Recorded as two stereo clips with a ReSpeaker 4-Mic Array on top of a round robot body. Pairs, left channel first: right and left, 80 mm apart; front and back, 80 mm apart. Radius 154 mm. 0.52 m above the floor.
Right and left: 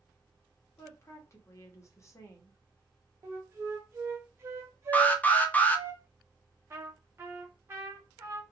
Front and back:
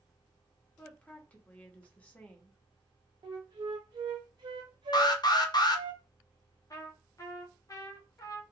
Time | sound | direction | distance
0.8 | a woman speaking | 65° right | 1.1 m
3.2 | a flute | 150° left | 0.5 m
4.9 | an alarm | 20° right | 0.7 m
6.7 | a trumpet | 35° left | 1.1 m